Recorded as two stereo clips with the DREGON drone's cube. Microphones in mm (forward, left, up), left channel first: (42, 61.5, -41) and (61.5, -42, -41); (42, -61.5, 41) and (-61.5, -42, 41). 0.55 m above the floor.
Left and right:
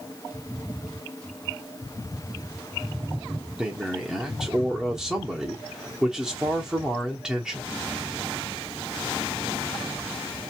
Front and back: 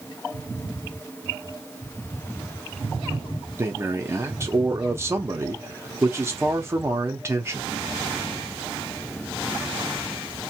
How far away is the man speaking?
About 0.7 m.